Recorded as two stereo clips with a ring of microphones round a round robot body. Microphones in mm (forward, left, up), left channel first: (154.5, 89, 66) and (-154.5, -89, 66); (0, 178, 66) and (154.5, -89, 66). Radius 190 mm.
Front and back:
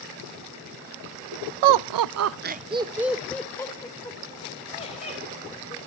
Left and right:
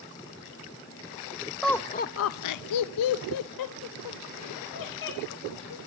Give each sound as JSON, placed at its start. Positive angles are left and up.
{"t": 1.6, "sound": "laughter", "azimuth_deg": -150, "distance_m": 0.6}